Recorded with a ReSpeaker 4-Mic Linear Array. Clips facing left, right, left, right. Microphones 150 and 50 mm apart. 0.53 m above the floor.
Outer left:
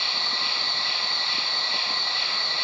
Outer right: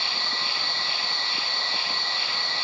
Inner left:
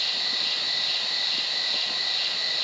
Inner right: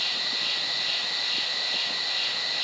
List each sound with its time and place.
0.0 s an insect: 45° right (ahead or behind), 3 m